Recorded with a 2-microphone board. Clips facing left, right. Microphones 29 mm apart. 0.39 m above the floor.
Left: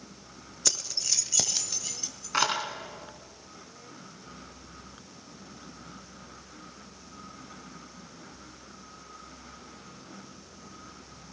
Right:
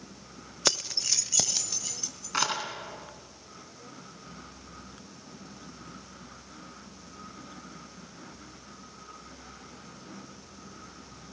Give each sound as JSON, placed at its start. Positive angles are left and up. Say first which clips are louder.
{"t": 0.7, "sound": "keys jangling", "louder": "right 3 dB", "side_deg": -40, "distance_m": 0.7}